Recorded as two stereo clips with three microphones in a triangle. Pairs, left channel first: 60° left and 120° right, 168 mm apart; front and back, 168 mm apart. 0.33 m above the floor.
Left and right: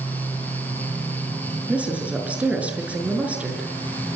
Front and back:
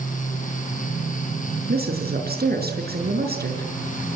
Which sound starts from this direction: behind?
A woman speaking, at 1.7 s.